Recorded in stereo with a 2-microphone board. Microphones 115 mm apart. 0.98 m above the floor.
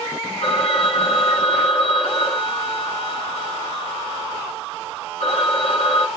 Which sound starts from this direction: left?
A phone ringing, at 0.4 s.